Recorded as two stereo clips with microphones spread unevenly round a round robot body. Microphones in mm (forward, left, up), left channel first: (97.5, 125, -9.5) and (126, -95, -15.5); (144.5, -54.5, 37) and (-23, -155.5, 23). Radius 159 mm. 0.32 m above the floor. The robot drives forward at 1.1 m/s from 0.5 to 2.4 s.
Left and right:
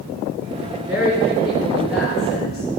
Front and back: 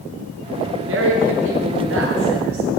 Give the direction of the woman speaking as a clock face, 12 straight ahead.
6 o'clock.